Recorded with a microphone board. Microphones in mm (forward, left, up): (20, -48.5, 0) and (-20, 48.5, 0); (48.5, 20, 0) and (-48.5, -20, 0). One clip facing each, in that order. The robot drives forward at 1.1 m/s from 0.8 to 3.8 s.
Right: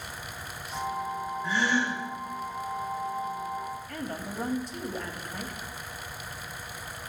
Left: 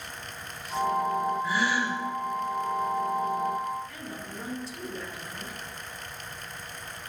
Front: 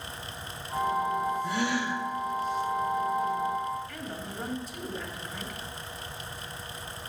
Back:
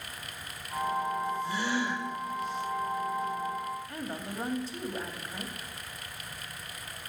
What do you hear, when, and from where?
1.4 s a gasp: 30° left, 3.5 m; by 2.0 s 35° left, 3 m
3.9 s a woman speaking: 100° right, 2 m